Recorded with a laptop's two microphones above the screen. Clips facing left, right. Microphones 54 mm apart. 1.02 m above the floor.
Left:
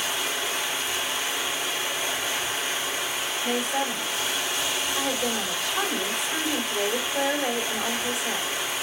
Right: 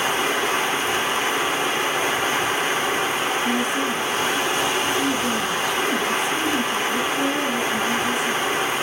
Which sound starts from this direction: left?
A woman speaking, at 3.4 s.